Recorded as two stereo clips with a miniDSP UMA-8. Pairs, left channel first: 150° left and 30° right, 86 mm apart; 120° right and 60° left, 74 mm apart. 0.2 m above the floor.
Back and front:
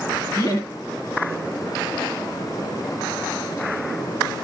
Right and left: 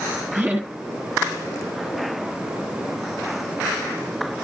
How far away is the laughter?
About 2.5 m.